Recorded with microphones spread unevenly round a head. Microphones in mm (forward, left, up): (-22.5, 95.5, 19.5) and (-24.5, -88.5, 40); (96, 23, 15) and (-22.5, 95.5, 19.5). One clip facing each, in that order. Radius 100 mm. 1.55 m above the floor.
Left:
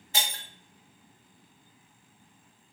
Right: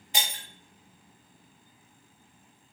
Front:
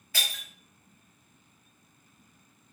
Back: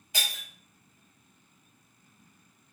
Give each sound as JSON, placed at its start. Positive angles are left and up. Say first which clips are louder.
{"t": 0.1, "sound": "breaking glass", "louder": "even, even", "azimuth_deg": -145, "distance_m": 0.9}